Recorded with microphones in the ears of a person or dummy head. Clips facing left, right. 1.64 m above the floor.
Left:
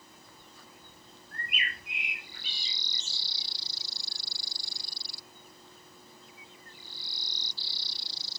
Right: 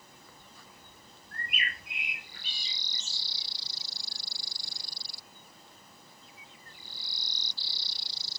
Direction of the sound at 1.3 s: 40° right (ahead or behind).